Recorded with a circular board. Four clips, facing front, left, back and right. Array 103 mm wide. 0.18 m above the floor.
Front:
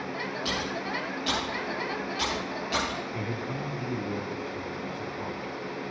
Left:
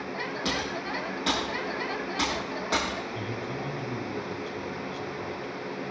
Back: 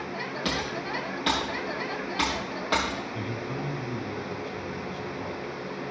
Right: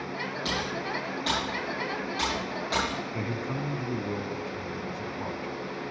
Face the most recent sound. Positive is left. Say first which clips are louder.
# right 1 dB, even
turn(degrees=-70)